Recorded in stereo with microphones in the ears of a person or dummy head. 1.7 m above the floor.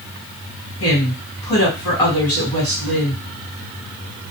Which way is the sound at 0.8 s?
20° left (ahead or behind).